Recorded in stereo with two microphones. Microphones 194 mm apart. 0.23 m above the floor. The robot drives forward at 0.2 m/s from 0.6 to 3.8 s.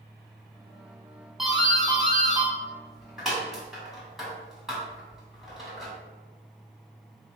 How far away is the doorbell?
About 1.5 m.